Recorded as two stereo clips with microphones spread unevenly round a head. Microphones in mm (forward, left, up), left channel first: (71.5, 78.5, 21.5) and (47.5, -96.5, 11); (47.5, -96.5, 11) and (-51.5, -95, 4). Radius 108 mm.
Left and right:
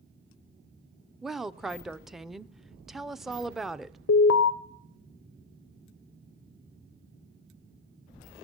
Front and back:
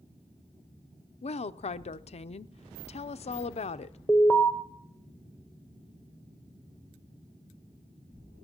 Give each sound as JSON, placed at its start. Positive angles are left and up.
{"t": 1.2, "sound": "a woman speaking", "azimuth_deg": -10, "distance_m": 0.6}
{"t": 4.1, "sound": "an alarm", "azimuth_deg": 80, "distance_m": 0.6}